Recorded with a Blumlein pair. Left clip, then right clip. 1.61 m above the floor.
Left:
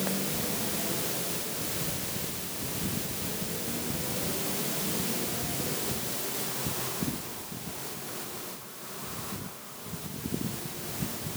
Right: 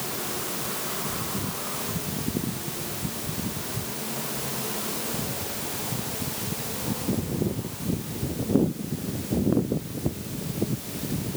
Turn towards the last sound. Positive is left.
No sound to turn to.